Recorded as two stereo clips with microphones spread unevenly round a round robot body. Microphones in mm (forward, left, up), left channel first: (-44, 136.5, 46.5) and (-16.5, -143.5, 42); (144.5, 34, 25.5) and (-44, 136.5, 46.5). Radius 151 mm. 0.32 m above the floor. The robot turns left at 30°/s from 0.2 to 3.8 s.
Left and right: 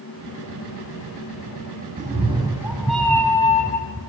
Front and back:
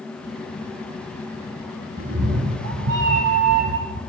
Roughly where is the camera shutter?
No camera shutter in this recording.